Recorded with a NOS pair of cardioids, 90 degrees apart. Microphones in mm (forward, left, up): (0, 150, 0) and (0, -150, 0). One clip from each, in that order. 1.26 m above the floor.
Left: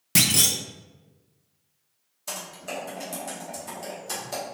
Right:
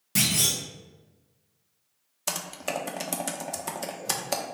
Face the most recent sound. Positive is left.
turn(degrees=-55)